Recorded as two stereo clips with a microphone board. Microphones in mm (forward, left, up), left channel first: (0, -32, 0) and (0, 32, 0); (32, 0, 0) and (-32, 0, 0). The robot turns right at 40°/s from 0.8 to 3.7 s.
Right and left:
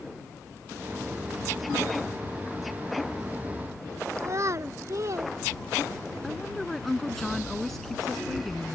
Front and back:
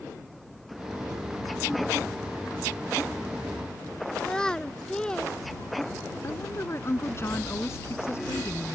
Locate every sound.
4.2 s a child speaking: 75° left
6.2 s a woman speaking: 5° right